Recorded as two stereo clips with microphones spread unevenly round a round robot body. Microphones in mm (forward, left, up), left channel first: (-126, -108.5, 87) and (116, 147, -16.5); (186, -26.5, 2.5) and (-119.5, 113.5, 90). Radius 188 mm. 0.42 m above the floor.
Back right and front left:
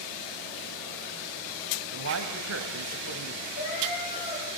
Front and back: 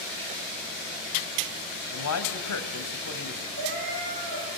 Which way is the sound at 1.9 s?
Straight ahead.